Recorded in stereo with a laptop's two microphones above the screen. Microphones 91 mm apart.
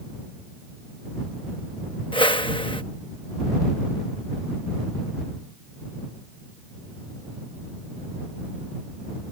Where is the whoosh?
70° left (ahead or behind).